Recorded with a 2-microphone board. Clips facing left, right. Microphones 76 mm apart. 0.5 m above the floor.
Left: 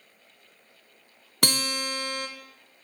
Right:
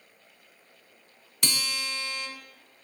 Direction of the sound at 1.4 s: 50° left (ahead or behind).